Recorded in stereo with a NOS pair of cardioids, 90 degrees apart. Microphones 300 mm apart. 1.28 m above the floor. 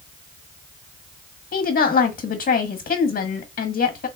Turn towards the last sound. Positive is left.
turn(degrees=35)